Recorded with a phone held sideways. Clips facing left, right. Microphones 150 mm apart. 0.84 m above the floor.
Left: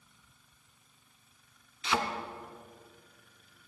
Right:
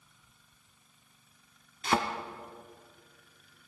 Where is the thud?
55° right (ahead or behind), 1.1 m.